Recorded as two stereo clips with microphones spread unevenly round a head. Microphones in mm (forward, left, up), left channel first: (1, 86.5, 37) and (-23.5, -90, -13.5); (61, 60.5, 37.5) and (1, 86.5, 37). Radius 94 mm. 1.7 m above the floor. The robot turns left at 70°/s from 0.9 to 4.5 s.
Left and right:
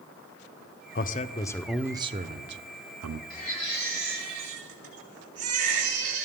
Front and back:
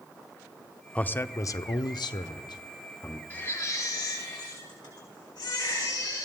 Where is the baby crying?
40° left, 6 m; by 6.3 s 45° right, 6 m.